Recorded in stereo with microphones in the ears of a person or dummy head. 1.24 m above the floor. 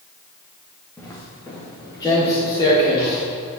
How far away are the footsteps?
About 4 m.